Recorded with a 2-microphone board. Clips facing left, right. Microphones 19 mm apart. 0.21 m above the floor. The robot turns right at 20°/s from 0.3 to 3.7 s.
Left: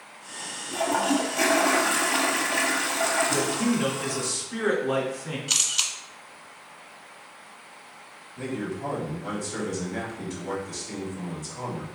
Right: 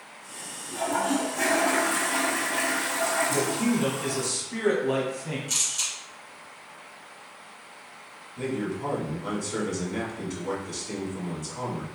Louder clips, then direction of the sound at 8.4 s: Right 2 dB; 30° right (ahead or behind).